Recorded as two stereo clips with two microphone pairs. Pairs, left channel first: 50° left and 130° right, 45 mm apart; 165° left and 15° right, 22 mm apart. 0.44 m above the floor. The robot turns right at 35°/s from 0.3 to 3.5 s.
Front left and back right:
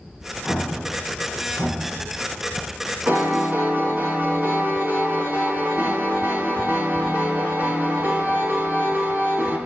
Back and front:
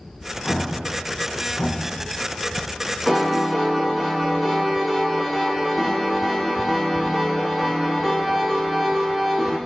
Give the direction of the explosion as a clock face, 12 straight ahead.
8 o'clock.